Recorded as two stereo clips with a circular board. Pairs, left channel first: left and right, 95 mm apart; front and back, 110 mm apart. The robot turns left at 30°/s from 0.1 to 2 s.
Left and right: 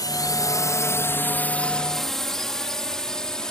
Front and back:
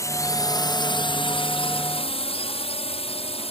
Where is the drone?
55° left; by 3.5 s 5° left.